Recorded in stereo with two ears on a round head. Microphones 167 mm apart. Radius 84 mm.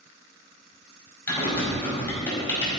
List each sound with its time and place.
1.3 s typing on a keyboard: 10° left (ahead or behind), 5 m